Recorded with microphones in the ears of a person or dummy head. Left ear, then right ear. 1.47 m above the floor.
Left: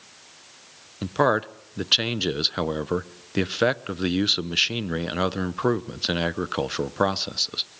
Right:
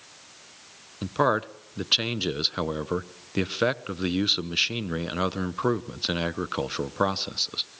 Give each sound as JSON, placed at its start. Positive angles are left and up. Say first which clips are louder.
{"t": 1.0, "sound": "a man speaking", "louder": "left 2 dB", "side_deg": 5, "distance_m": 0.9}